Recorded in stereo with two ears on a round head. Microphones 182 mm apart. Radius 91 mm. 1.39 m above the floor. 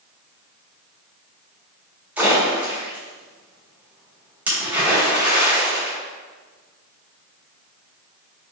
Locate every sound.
2.2 s a splash: 5° right (ahead or behind), 1.9 m